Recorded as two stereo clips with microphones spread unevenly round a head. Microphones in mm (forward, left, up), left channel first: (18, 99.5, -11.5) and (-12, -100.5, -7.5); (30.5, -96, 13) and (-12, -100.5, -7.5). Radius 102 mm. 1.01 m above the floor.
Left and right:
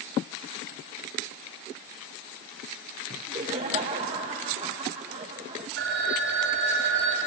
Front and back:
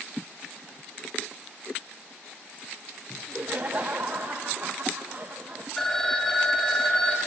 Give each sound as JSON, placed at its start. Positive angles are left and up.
{"t": 3.1, "sound": "laughter", "azimuth_deg": -160, "distance_m": 1.1}
{"t": 5.8, "sound": "a phone ringing", "azimuth_deg": -65, "distance_m": 3.5}